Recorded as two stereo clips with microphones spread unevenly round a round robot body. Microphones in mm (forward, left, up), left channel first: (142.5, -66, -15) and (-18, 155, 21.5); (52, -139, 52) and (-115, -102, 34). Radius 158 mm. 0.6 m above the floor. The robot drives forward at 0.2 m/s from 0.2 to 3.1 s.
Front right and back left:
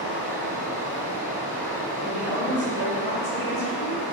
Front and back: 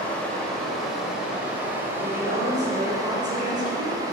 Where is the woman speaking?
145° right, 1.9 m; by 4.0 s 150° right, 2 m.